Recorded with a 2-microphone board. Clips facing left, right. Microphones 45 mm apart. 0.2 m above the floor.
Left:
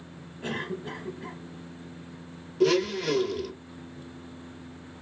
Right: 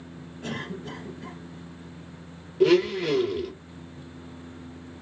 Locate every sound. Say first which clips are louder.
0.4 s a cough: left 2 dB; 20° left (ahead or behind), 1.0 m
2.6 s a blender: right 3 dB; 20° right (ahead or behind), 0.9 m